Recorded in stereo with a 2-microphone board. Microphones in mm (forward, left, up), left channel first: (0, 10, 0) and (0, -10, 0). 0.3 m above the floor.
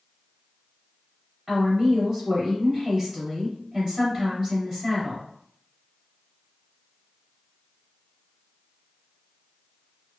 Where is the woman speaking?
30° right (ahead or behind), 1.7 m.